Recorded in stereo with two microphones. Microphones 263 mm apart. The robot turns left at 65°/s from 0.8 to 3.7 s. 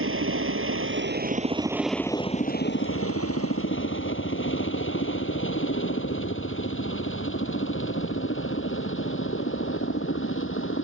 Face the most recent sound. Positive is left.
turn(degrees=55)  # may be behind; listen again after turning